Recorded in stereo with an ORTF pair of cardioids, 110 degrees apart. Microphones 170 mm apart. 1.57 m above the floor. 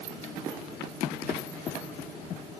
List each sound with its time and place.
Only background noise.